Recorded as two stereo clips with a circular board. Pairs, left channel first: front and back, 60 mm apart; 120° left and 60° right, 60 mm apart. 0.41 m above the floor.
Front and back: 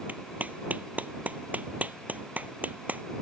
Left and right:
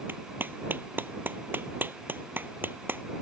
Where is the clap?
115° right.